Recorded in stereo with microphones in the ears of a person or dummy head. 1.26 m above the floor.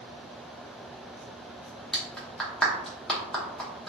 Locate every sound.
1.9 s a clap: 5° left (ahead or behind), 0.6 m